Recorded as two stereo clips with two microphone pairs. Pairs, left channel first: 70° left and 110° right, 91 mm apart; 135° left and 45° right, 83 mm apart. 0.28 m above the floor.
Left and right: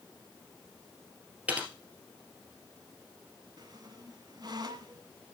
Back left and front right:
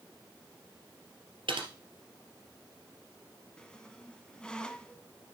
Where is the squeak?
145° right, 0.7 m.